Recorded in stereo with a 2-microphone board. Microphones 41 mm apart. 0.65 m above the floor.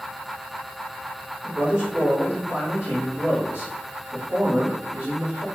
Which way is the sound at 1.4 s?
45° right (ahead or behind).